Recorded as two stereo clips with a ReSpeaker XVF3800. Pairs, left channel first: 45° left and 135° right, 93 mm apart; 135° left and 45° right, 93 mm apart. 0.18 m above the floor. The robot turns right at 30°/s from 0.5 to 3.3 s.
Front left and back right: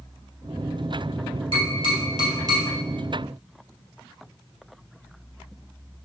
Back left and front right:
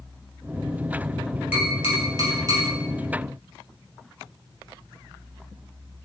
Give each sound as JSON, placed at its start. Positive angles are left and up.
{"t": 1.5, "sound": "tapping", "azimuth_deg": -115, "distance_m": 2.0}